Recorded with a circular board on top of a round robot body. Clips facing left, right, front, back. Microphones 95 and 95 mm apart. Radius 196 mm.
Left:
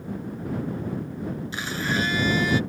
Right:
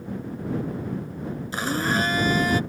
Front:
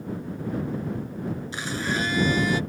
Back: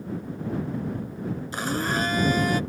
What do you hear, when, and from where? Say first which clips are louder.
1.5 s a blender: right 4 dB, back 3 dB; 135° right